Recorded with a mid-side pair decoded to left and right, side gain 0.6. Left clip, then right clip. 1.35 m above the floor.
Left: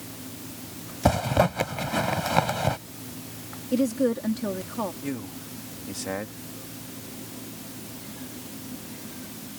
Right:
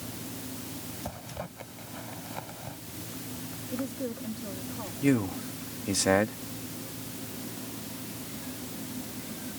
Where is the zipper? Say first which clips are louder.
Left 22 dB; 65° left.